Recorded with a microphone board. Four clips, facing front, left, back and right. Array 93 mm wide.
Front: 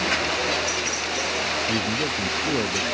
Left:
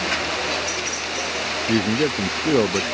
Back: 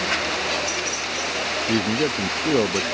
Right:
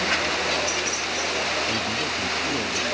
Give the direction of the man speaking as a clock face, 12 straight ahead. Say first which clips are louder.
Left 7 dB, back 3 dB; 8 o'clock.